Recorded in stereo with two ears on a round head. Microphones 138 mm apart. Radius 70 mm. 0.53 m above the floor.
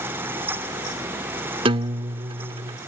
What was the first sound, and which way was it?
A guitar, 35° right (ahead or behind).